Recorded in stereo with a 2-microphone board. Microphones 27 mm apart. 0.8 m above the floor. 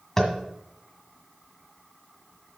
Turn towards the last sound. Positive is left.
turn(degrees=10)  # may be behind; listen again after turning